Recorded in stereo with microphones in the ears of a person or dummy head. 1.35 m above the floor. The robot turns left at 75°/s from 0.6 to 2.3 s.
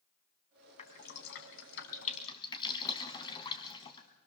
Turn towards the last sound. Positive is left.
turn(degrees=25)  # may be behind; listen again after turning